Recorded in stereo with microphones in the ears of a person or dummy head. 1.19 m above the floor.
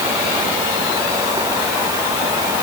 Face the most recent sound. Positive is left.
No sound to turn to.